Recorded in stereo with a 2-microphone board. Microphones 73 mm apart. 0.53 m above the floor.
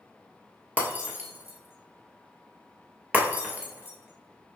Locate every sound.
0.8 s breaking glass: 25° right (ahead or behind), 0.9 m